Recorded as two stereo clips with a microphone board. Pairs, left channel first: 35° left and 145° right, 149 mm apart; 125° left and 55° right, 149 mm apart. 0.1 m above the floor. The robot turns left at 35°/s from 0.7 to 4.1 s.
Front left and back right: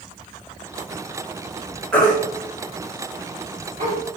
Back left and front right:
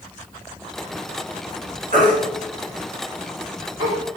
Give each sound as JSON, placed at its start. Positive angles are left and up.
{"t": 1.9, "sound": "a baby crying", "azimuth_deg": -45, "distance_m": 2.5}